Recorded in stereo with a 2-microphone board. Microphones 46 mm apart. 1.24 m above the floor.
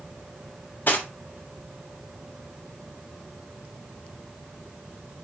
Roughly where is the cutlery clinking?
Left.